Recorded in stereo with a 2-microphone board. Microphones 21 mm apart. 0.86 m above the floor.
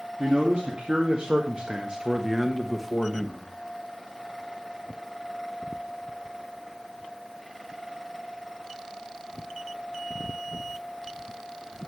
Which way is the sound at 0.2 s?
65° right (ahead or behind).